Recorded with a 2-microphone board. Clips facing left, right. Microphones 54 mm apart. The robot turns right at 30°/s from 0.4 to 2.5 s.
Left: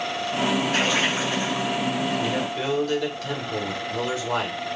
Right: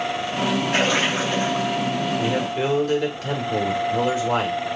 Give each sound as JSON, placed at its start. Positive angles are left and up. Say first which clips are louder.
{"t": 0.7, "sound": "a splash", "louder": "right 2 dB", "azimuth_deg": -75, "distance_m": 2.5}
{"t": 2.2, "sound": "a man speaking", "louder": "right 3 dB", "side_deg": -35, "distance_m": 1.8}